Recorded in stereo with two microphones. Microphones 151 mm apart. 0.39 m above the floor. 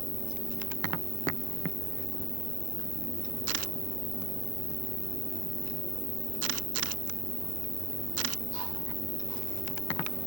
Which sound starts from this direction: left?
An insect, at 0.0 s.